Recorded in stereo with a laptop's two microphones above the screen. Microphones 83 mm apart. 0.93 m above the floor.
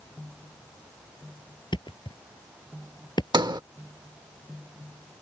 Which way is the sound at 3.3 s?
60° right (ahead or behind).